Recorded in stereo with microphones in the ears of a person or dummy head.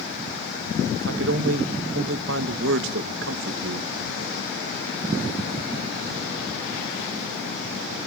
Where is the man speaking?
60° right (ahead or behind), 1.7 m.